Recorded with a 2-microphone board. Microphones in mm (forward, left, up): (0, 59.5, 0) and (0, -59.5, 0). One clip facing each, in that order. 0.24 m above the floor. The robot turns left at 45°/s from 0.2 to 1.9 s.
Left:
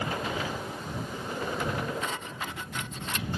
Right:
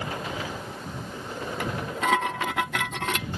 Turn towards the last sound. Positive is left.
turn(degrees=-85)